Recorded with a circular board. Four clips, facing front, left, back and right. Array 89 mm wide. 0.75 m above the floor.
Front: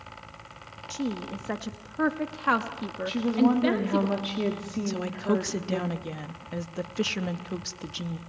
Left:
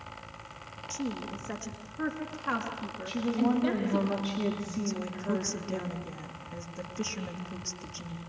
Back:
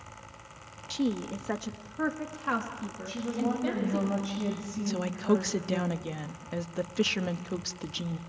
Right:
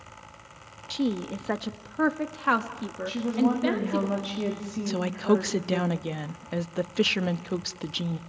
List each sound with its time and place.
0.9 s a woman speaking: 110° right, 0.9 m; by 4.1 s 25° right, 1.7 m
3.1 s a woman speaking: 15° right, 1.9 m
4.9 s a woman speaking: 90° right, 0.6 m